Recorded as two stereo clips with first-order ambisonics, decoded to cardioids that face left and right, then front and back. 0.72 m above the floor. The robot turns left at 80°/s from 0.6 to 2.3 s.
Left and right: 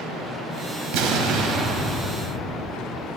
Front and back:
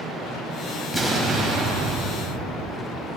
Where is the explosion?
90° right, 2.5 m; by 2.7 s 165° left, 2.5 m.